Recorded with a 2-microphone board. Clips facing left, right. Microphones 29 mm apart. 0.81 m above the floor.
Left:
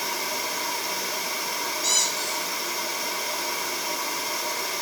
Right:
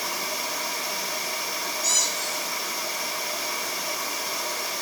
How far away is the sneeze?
I don't hear a sneeze.